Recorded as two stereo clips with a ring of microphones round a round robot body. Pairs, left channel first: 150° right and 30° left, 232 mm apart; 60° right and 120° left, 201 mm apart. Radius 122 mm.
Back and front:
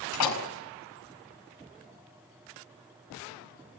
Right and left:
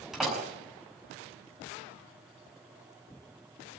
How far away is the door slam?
About 6 m.